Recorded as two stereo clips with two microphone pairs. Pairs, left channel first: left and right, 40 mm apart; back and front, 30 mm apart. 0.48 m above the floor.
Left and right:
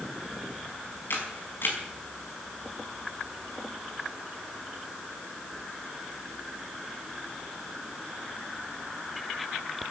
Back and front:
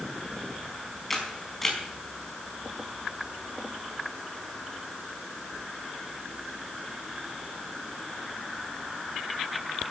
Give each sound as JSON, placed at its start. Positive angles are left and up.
{"t": 1.1, "sound": "a camera shutter", "azimuth_deg": 100, "distance_m": 5.0}